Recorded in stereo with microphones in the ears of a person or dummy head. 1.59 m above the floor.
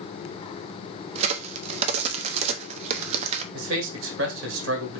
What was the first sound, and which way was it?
A crack, 40° right (ahead or behind).